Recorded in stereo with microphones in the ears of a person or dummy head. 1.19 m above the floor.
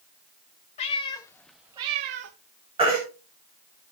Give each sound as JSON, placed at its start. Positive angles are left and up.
{"t": 0.8, "sound": "a cat meowing", "side_deg": 35, "distance_m": 1.1}
{"t": 2.8, "sound": "a baby crying", "side_deg": -30, "distance_m": 5.5}